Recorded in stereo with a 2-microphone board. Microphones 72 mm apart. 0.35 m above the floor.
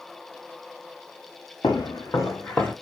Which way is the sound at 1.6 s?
70° left (ahead or behind).